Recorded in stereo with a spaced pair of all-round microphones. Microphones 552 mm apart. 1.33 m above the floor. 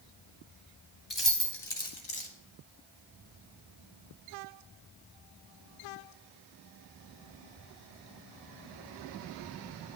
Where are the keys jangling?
45° left (ahead or behind), 2.5 m; by 2.3 s 60° left (ahead or behind), 1.5 m.